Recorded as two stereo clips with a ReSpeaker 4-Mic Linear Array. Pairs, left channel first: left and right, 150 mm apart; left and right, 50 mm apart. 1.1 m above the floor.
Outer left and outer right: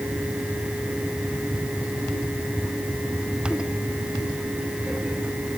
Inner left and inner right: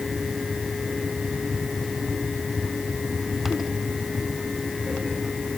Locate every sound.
Only background noise.